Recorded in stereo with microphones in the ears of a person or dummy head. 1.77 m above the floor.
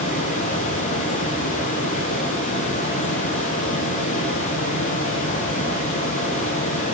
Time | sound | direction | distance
0.0 | a fan | 40° left (ahead or behind) | 2.5 m